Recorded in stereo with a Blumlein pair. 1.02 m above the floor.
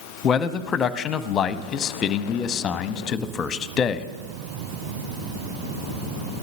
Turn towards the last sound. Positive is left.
turn(degrees=25)